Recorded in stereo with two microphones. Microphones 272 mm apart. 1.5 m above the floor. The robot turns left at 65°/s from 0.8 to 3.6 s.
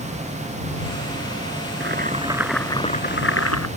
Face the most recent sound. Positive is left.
turn(degrees=110)